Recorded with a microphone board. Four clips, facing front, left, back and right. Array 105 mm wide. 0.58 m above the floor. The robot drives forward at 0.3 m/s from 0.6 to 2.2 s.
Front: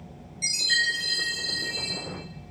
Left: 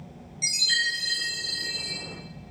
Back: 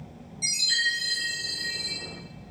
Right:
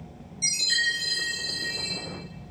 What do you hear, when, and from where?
0.4 s a chime: 60° left, 1.3 m; by 1.9 s 80° left, 1.2 m